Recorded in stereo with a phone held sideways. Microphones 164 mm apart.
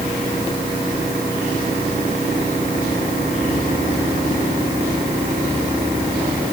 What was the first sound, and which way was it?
Only background noise.